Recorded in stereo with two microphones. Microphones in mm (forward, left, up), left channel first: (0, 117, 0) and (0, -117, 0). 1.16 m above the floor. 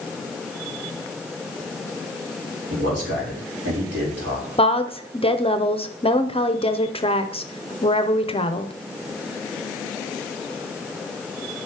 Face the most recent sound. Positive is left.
turn(degrees=25)  # may be behind; listen again after turning